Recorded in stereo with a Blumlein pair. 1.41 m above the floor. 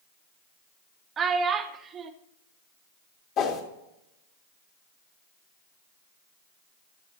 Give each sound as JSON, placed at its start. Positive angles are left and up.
{"t": 1.2, "sound": "a child speaking", "azimuth_deg": -25, "distance_m": 1.1}
{"t": 3.4, "sound": "a whoosh", "azimuth_deg": 35, "distance_m": 2.5}